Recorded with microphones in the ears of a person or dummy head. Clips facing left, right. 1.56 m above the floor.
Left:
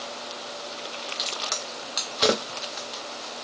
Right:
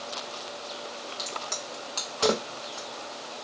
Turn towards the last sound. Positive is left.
turn(degrees=25)  # may be behind; listen again after turning